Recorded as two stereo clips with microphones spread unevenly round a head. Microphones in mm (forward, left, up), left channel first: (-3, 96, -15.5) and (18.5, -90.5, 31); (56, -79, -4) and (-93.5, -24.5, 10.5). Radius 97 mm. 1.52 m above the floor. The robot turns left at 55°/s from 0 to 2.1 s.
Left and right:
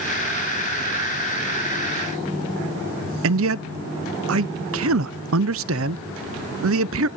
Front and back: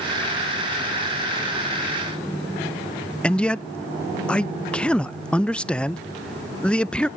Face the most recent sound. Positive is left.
turn(degrees=-105)